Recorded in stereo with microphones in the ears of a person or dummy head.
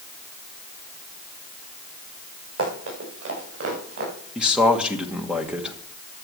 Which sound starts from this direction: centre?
A man speaking, at 4.3 s.